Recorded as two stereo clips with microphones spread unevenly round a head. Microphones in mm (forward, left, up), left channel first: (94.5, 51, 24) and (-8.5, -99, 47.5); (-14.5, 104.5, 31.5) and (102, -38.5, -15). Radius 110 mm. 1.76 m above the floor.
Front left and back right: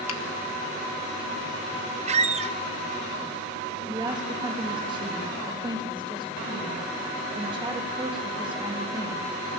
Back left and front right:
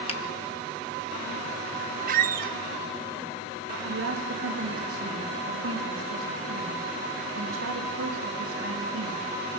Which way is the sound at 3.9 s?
60° right.